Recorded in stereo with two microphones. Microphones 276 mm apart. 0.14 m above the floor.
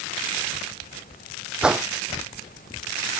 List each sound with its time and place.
1.6 s a whoosh: 5° right (ahead or behind)